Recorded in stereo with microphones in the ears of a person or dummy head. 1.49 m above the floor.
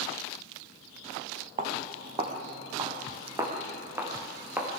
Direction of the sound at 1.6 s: 40° right (ahead or behind).